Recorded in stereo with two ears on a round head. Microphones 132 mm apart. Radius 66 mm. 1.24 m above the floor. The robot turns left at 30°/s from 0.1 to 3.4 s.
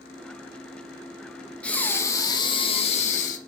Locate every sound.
1.6 s breathing: 170° left, 1.8 m; by 3.4 s 120° left, 1.8 m